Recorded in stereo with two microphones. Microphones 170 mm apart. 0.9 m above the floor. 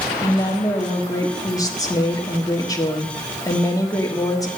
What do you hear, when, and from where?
0.2 s a woman speaking: 20° left (ahead or behind), 1.5 m